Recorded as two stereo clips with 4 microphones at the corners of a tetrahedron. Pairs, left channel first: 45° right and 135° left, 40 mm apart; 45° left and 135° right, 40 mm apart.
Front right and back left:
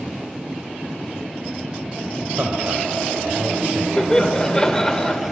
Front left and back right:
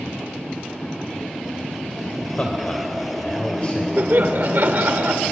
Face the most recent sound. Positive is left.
turn(degrees=-115)